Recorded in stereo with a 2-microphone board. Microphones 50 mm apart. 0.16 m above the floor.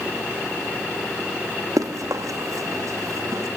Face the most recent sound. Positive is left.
turn(degrees=-65)  # may be behind; listen again after turning